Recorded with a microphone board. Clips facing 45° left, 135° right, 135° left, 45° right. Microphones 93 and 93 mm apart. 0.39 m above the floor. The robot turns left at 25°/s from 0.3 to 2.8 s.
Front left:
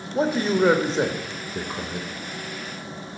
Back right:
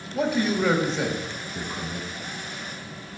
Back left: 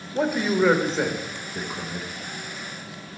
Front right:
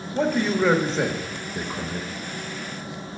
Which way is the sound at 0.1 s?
65° left.